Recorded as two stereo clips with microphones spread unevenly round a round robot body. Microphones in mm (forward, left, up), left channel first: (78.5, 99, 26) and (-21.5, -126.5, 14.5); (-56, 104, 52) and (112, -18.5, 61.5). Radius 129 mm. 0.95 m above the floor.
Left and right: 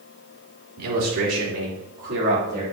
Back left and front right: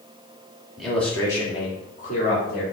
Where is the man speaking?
125° right, 2.5 m; by 2.6 s 170° right, 4 m.